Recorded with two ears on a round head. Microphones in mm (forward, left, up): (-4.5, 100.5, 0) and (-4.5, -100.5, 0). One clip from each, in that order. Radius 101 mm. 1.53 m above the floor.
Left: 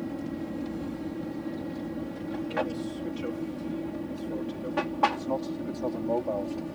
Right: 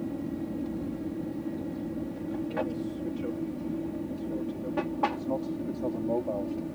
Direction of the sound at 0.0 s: 50° left (ahead or behind).